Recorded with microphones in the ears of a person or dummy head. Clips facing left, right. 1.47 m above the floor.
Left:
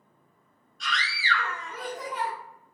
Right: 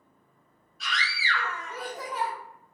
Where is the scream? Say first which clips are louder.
Left 1 dB; 5° right (ahead or behind), 1.1 m.